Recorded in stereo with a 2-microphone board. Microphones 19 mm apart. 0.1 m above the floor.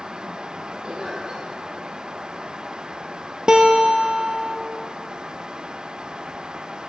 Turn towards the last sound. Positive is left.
turn(degrees=-45)  # may be behind; listen again after turning